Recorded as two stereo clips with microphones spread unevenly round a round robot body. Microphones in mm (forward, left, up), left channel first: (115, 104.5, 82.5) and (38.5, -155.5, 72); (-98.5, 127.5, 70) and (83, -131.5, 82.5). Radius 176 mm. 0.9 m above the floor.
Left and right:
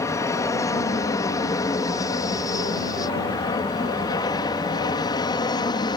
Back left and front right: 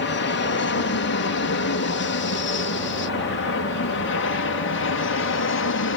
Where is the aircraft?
150° left; by 6.0 s 145° left.